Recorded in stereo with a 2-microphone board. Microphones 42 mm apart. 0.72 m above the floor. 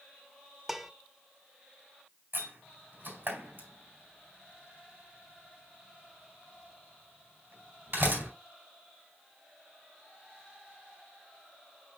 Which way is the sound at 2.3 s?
60° right (ahead or behind).